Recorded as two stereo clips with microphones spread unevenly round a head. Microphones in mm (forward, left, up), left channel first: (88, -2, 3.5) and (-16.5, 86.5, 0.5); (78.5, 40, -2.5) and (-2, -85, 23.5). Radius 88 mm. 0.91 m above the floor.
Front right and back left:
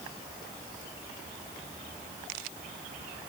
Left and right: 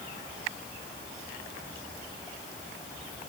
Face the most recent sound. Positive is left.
No sound to turn to.